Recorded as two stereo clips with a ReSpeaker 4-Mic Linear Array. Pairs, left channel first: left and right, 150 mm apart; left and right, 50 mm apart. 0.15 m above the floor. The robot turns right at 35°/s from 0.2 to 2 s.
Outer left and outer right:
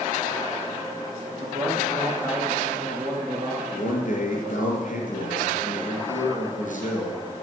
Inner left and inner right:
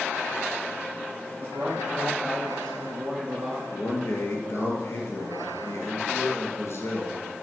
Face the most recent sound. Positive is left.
turn(degrees=60)  # may be behind; listen again after turning